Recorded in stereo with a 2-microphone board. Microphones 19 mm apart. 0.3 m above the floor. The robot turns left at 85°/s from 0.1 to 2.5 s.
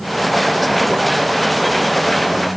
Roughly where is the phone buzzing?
No phone buzzing in this recording.